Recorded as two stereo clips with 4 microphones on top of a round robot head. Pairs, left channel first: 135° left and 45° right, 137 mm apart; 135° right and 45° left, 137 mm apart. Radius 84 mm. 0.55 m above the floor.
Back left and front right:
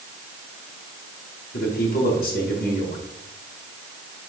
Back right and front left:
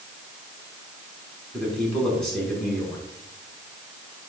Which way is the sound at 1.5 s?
140° left.